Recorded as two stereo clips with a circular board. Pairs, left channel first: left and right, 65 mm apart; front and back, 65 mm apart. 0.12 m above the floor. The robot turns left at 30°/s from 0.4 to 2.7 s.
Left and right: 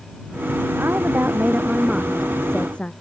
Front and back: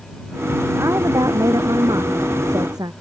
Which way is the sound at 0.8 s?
140° right.